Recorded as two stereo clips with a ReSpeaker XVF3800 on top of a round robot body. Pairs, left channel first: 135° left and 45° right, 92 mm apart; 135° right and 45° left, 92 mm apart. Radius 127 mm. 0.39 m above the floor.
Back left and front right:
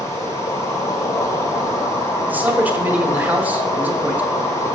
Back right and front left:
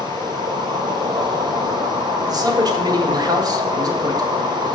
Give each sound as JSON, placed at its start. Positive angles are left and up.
{"t": 0.0, "sound": "an insect", "azimuth_deg": 80, "distance_m": 1.1}
{"t": 2.3, "sound": "a man speaking", "azimuth_deg": 20, "distance_m": 1.3}